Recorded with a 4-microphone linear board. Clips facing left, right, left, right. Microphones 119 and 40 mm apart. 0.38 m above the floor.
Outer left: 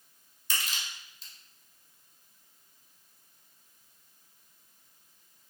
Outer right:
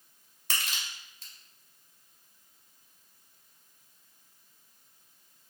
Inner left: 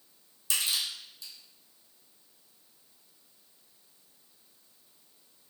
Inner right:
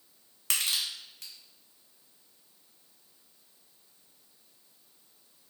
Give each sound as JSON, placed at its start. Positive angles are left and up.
{"t": 0.5, "sound": "crushing", "side_deg": -65, "distance_m": 0.7}